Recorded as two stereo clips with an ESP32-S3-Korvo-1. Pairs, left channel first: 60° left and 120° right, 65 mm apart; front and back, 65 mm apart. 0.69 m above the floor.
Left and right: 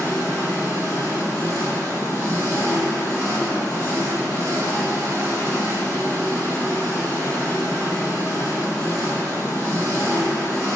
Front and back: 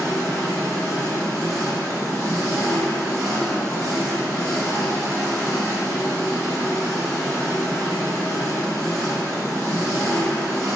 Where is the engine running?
Straight ahead, 1.7 m.